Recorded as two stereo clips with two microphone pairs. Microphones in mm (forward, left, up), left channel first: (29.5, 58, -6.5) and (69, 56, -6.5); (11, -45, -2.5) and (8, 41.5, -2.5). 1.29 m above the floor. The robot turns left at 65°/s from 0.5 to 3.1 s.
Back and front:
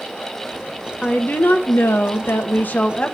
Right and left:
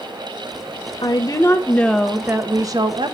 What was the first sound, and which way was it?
A woman speaking, 115° right.